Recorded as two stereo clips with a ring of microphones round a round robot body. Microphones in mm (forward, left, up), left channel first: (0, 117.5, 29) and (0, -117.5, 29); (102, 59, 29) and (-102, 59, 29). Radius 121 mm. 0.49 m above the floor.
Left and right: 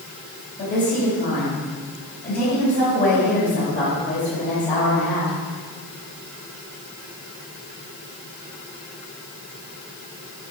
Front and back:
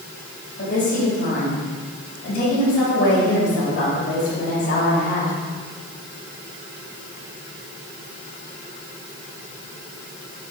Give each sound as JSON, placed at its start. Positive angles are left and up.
{"t": 0.6, "sound": "a woman speaking", "azimuth_deg": 35, "distance_m": 2.5}